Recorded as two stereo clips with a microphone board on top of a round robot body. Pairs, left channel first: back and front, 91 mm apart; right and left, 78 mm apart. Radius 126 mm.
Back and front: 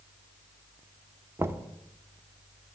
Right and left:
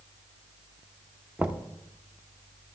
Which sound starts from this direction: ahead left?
Knocking, at 1.4 s.